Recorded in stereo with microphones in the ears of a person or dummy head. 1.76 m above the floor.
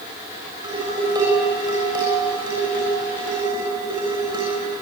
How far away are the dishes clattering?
About 6 m.